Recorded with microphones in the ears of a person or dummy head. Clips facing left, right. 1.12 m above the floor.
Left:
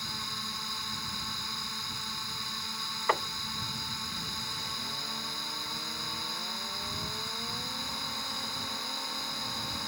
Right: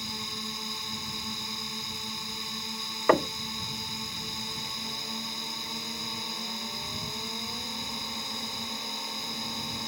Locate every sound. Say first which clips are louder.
0.0 s a drone: right 4 dB; 15° right (ahead or behind)
3.1 s knocking: right 10 dB; 50° right (ahead or behind)